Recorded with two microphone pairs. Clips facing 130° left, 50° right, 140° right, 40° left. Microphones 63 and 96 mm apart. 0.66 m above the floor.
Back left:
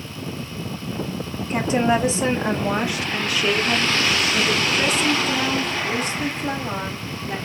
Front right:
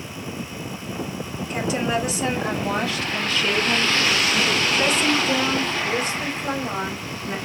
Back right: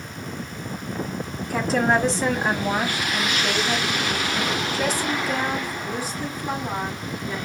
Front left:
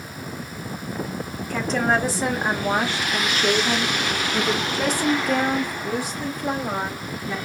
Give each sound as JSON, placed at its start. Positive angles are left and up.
{"t": 1.5, "sound": "a woman speaking", "azimuth_deg": 145, "distance_m": 1.2}